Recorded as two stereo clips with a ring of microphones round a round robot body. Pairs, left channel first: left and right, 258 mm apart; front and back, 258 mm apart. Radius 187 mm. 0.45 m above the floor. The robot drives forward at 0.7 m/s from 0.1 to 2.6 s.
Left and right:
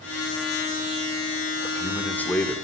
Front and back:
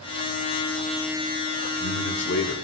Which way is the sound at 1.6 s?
5° left.